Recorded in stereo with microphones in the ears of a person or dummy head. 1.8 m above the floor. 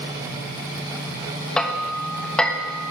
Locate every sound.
1.6 s hammering: 5° left (ahead or behind), 1.2 m